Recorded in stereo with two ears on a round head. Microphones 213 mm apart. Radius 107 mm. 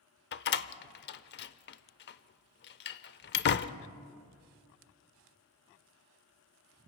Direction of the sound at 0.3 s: 45° left (ahead or behind).